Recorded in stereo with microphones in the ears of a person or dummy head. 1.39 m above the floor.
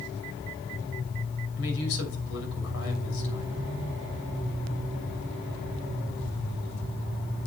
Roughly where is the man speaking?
Left.